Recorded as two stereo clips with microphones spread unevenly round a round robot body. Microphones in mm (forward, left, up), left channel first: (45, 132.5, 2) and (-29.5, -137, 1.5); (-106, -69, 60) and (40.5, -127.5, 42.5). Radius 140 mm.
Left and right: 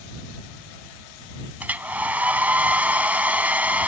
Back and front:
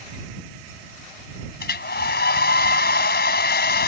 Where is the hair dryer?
170° left.